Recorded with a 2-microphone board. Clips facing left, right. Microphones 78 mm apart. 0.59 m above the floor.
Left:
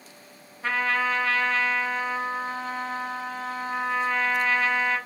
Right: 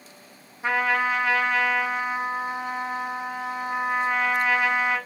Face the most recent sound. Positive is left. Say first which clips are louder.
# right 2 dB
turn(degrees=-15)  # may be behind; listen again after turning